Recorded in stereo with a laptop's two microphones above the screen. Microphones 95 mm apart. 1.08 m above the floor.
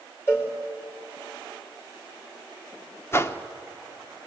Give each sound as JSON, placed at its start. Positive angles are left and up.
{"t": 0.3, "sound": "a cowbell", "side_deg": 25, "distance_m": 3.5}
{"t": 3.1, "sound": "a whoosh", "side_deg": 30, "distance_m": 1.1}